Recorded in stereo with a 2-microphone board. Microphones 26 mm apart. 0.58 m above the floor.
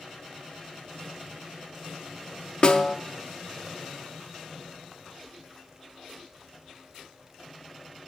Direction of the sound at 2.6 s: 40° left (ahead or behind).